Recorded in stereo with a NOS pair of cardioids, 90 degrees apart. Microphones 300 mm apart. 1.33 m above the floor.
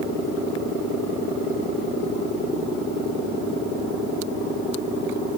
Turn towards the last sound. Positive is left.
No sound to turn to.